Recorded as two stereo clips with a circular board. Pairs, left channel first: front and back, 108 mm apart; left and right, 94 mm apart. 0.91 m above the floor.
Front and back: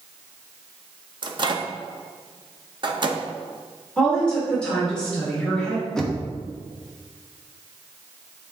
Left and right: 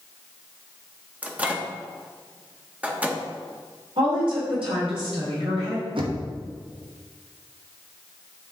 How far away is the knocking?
About 1.0 m.